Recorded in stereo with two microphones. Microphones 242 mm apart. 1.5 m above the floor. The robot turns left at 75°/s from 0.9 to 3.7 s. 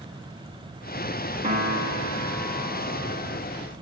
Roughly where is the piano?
Ahead right.